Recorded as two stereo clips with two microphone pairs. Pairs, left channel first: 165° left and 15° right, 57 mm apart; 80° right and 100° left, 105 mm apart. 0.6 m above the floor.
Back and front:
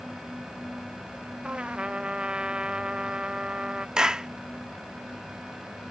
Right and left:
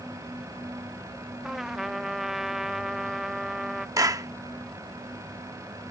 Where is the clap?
55° left.